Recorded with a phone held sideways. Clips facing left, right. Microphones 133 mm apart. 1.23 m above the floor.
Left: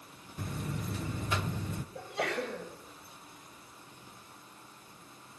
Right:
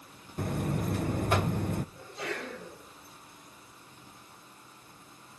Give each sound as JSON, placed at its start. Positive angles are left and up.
{"t": 0.4, "sound": "a buzzer", "side_deg": -60, "distance_m": 0.7}
{"t": 1.9, "sound": "a sneeze", "side_deg": 80, "distance_m": 7.0}